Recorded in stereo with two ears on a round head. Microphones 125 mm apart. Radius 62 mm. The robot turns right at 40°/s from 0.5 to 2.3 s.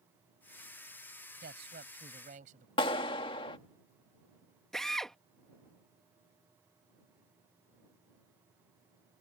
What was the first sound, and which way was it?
A man speaking, 95° right.